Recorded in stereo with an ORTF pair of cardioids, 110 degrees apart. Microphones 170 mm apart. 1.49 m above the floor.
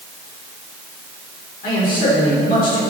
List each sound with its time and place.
1.6 s a man speaking: 55° left, 5.5 m